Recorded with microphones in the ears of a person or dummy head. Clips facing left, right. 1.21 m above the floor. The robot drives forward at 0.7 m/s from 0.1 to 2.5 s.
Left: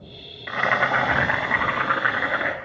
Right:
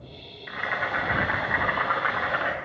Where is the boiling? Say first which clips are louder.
Left 8 dB; 60° left (ahead or behind), 0.6 m; by 2.5 s 25° left (ahead or behind), 1.4 m.